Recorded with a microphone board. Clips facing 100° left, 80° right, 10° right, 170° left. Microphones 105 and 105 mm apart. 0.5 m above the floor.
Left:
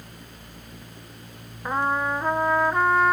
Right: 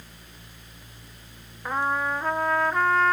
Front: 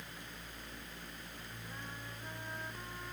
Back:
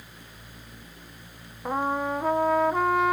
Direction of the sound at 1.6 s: Straight behind.